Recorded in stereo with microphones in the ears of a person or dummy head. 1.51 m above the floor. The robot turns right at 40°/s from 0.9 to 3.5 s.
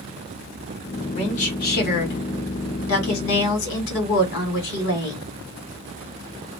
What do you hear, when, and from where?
1.1 s a woman speaking: 25° left, 1.7 m; by 5.2 s 120° left, 1.7 m